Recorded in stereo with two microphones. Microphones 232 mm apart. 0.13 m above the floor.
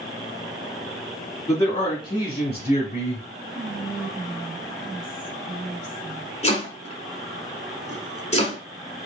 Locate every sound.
1.5 s a man speaking: 15° left (ahead or behind), 1.6 m; by 3.3 s 30° left (ahead or behind), 1.5 m
3.5 s whispering: 30° right (ahead or behind), 1.1 m
6.4 s chopping: 30° left (ahead or behind), 0.9 m